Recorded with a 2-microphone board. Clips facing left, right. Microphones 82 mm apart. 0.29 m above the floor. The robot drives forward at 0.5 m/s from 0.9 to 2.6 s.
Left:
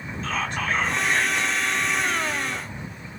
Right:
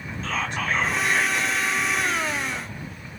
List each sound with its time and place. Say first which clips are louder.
0.2 s whispering: even; 5° right (ahead or behind), 2.0 m